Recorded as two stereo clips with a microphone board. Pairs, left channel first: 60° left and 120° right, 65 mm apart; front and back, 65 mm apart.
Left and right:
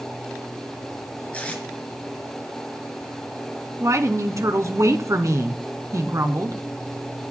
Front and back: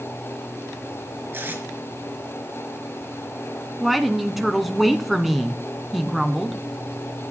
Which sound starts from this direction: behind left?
Tape being pulled, at 1.3 s.